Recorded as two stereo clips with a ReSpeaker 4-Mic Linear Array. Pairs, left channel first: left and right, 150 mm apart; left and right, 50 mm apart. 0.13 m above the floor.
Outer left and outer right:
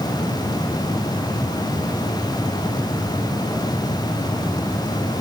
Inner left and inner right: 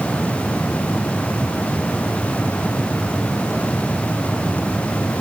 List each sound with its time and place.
Only background noise.